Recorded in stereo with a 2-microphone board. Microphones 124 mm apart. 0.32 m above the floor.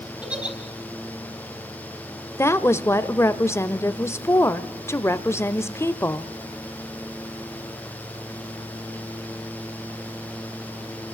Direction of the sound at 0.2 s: 10° right (ahead or behind).